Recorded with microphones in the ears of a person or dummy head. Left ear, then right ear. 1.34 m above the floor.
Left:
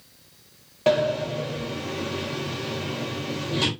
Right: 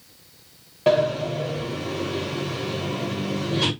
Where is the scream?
I don't hear a scream.